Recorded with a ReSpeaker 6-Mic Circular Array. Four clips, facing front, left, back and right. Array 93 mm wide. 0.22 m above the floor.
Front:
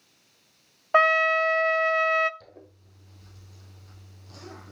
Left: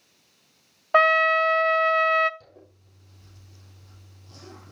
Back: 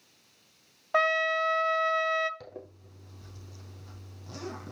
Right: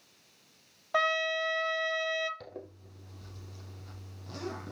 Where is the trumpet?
55° left, 0.6 m.